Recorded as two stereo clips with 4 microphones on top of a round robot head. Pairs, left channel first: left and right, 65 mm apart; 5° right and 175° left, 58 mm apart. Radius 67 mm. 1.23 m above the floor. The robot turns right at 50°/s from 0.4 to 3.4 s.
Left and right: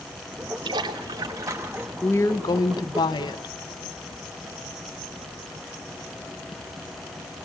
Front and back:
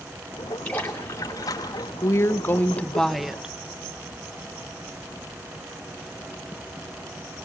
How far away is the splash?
About 2.5 m.